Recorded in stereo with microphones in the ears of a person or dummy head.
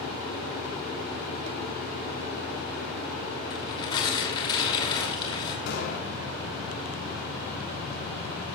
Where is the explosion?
50° left (ahead or behind), 4.5 m.